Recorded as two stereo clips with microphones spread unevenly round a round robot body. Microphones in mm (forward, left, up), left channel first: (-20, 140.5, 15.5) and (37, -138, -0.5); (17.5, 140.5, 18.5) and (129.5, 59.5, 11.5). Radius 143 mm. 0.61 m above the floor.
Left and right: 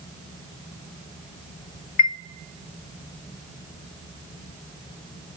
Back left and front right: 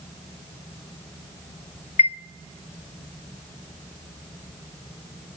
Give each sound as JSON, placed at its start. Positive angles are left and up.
{"t": 2.0, "sound": "a chime", "azimuth_deg": 110, "distance_m": 0.5}